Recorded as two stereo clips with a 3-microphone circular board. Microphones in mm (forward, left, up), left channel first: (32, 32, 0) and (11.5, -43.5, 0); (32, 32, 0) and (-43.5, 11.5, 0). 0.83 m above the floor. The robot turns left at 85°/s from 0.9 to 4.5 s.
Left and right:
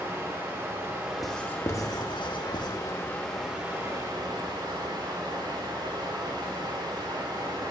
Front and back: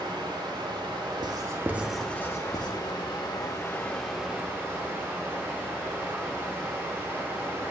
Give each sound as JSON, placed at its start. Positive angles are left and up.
{"t": 0.0, "sound": "running water", "azimuth_deg": -165, "distance_m": 1.7}
{"t": 1.2, "sound": "writing", "azimuth_deg": 165, "distance_m": 0.8}